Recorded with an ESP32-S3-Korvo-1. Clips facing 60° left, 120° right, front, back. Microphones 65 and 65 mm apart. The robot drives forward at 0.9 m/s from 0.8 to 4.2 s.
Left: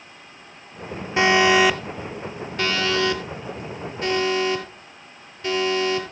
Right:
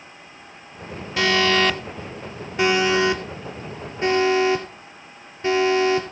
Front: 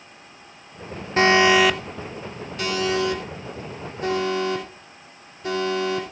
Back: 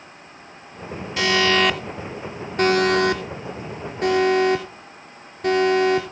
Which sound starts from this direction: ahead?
An alarm, at 1.2 s.